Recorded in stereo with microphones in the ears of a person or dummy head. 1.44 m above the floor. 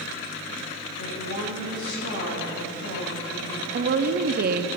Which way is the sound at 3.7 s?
50° right (ahead or behind).